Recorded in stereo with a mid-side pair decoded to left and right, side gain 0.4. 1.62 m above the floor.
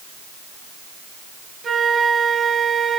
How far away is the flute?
About 4.5 m.